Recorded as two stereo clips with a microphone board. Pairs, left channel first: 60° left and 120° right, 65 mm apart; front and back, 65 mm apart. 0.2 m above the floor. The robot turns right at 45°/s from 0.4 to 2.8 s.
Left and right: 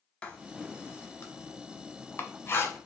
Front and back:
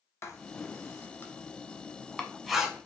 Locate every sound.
0.2 s writing: 5° right, 0.8 m; by 2.9 s 105° left, 0.8 m